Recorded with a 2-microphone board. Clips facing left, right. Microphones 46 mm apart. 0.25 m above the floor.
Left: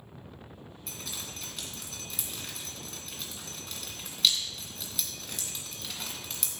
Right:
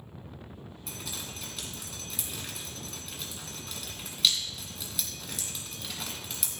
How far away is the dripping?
About 2 m.